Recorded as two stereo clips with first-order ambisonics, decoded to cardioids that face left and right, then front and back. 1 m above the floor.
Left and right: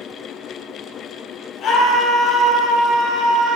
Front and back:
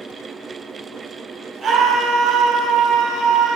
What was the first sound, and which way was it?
A scream, 125° left.